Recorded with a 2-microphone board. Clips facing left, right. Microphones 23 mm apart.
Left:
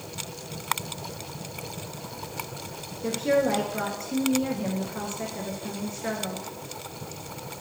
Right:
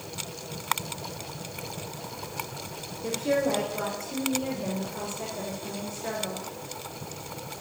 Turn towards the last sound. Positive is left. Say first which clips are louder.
# left 3 dB
turn(degrees=25)  # may be behind; listen again after turning